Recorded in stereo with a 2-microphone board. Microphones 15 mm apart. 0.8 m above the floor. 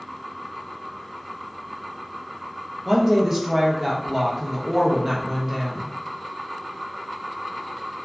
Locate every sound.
2.9 s a woman speaking: 25° right (ahead or behind), 0.8 m